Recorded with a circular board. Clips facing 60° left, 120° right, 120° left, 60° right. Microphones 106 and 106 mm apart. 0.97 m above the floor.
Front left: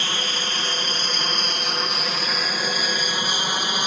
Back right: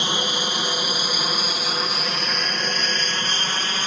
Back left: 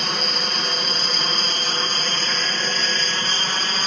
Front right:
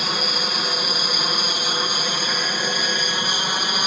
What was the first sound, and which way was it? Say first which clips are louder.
An aircraft: back right 3 dB, front right 1 dB; 140° right.